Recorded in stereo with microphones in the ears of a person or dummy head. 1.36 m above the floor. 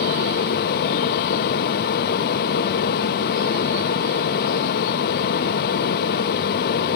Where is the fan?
50° left (ahead or behind), 0.9 m.